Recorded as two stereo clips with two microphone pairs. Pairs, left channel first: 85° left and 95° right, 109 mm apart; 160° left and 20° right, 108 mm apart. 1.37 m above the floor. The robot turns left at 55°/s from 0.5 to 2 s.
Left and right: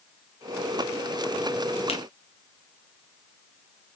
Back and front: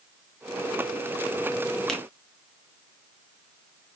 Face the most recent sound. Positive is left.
turn(degrees=75)